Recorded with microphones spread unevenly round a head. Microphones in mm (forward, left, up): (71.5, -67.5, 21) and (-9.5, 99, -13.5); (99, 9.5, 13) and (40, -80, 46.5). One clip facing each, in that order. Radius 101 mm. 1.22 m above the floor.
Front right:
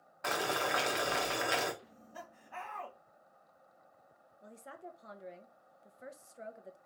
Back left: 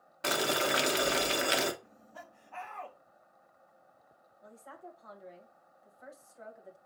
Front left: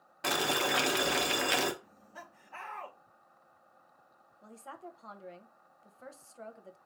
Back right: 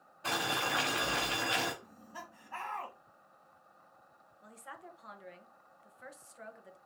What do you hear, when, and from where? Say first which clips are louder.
0.2 s boiling: back left 4 dB, front left 3 dB; 65° left, 1.0 m
1.8 s laughter: front right 1 dB, back right 2 dB; 120° right, 2.5 m
4.4 s a woman speaking: even, front left 3 dB; straight ahead, 0.9 m